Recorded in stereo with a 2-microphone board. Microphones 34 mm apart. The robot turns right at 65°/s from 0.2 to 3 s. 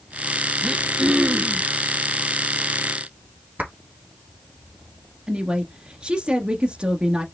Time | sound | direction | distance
0.6 | throat clearing | 160° right | 0.8 m
3.6 | a clap | 55° right (ahead or behind) | 2.5 m
5.3 | a woman speaking | 30° right (ahead or behind) | 1.3 m